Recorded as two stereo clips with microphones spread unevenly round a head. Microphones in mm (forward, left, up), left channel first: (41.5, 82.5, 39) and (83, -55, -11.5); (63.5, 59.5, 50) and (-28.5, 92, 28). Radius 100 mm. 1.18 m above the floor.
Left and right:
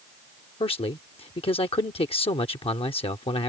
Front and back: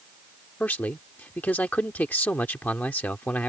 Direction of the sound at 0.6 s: 55° left.